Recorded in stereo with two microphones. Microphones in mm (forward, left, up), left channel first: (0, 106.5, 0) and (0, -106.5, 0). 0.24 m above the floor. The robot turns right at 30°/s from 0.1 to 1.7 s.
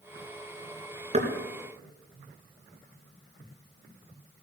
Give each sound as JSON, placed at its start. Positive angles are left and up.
{"t": 1.1, "sound": "knocking", "side_deg": -35, "distance_m": 3.0}